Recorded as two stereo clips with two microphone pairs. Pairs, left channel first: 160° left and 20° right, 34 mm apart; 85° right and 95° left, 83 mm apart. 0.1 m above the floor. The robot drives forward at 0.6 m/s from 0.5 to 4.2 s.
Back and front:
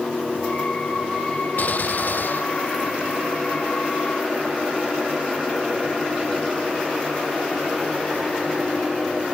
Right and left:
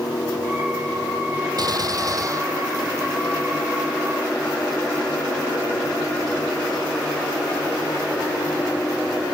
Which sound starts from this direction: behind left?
A gunshot, at 1.6 s.